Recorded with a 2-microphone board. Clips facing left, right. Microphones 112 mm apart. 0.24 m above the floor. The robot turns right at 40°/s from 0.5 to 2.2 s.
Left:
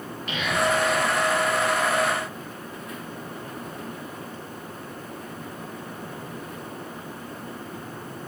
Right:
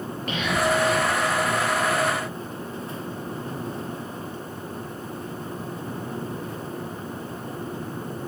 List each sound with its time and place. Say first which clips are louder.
0.3 s whispering: right 1 dB; 45° right (ahead or behind), 5 m; by 1.1 s 25° right (ahead or behind), 5 m